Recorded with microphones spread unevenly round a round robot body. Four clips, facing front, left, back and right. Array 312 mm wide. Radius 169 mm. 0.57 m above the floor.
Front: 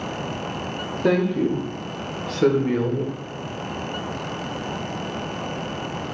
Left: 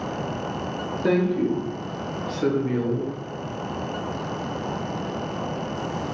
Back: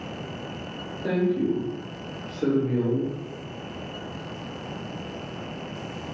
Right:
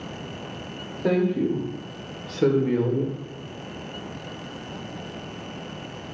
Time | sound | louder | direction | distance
1.0 | a woman speaking | left 1 dB, front 4 dB | 20° left | 1.5 m